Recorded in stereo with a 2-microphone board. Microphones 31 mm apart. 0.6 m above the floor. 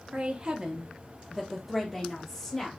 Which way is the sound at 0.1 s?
35° right (ahead or behind).